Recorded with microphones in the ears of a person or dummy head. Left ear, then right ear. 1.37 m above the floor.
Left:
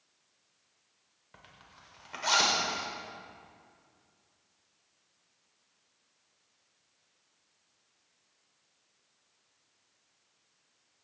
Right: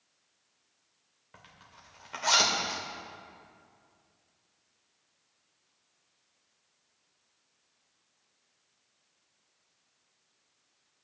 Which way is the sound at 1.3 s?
5° right (ahead or behind).